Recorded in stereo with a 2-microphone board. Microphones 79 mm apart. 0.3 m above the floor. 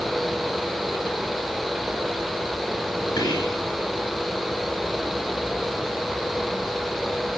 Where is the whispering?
50° left (ahead or behind), 3 m.